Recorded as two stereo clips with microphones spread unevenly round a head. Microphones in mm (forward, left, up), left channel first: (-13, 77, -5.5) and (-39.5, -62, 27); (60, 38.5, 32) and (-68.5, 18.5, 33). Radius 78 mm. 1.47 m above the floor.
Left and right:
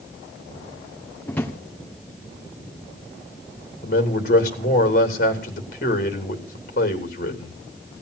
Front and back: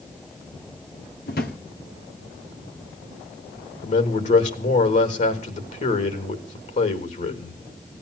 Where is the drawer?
10° right, 1.6 m.